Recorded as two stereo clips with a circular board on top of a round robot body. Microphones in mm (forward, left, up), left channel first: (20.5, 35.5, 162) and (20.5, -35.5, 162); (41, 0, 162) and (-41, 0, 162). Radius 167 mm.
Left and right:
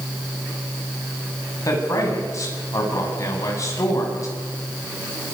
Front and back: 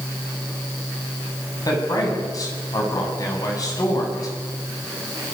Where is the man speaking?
45° left, 7.5 m.